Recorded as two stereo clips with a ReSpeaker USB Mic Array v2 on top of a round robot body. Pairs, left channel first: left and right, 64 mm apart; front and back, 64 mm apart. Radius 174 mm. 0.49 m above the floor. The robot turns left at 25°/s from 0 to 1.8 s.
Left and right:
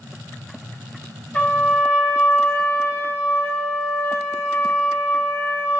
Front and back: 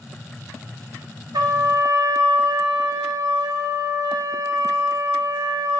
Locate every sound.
1.3 s a trumpet: 160° left, 1.1 m; by 5.8 s 150° left, 1.1 m